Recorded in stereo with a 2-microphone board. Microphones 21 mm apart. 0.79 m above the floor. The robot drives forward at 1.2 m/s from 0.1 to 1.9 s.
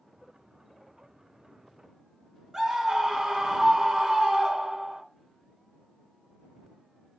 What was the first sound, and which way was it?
A scream, 25° right (ahead or behind).